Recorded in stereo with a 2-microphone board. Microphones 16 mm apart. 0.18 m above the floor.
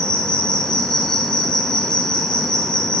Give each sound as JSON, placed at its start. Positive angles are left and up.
{"t": 0.0, "sound": "an insect", "side_deg": 80, "distance_m": 1.2}